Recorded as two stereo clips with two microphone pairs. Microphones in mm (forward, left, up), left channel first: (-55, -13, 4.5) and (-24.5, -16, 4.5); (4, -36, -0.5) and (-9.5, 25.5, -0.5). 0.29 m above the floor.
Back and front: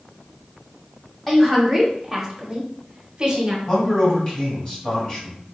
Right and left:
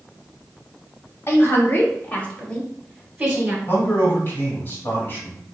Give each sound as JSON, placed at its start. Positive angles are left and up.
{"t": 1.3, "sound": "a woman speaking", "azimuth_deg": -105, "distance_m": 1.6}
{"t": 3.7, "sound": "a man speaking", "azimuth_deg": -130, "distance_m": 2.0}